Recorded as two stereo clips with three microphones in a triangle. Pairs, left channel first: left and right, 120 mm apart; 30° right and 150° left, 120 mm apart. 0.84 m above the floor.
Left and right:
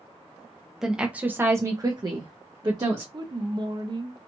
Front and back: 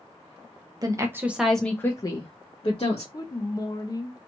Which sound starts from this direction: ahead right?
A woman speaking, at 3.1 s.